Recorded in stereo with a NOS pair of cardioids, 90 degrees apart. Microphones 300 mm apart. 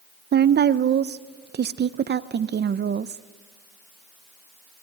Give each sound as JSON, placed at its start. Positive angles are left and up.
{"t": 0.3, "sound": "a woman speaking", "azimuth_deg": -35, "distance_m": 0.6}